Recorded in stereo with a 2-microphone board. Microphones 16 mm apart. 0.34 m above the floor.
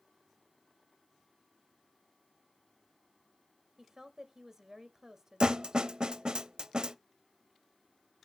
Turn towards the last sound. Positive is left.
turn(degrees=-55)  # may be behind; listen again after turning